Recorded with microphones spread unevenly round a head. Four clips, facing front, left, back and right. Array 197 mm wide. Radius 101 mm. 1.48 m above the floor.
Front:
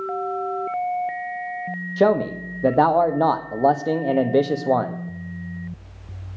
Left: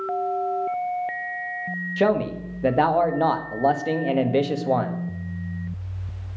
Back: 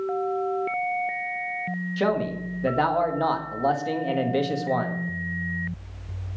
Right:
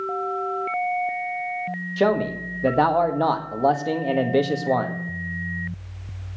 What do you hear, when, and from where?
2.0 s a man speaking: 10° right, 1.7 m